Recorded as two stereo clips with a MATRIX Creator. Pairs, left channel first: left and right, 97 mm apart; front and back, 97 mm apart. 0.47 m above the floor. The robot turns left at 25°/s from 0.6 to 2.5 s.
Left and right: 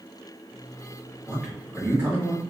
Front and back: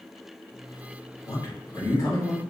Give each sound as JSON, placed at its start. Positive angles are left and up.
{"t": 1.3, "sound": "a man speaking", "azimuth_deg": -10, "distance_m": 1.2}